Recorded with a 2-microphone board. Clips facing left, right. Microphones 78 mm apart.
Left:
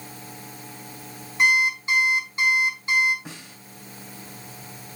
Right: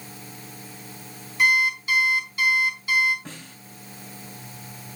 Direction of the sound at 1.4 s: 25° left (ahead or behind).